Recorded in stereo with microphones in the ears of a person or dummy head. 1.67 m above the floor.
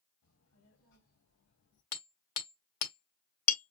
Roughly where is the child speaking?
Left.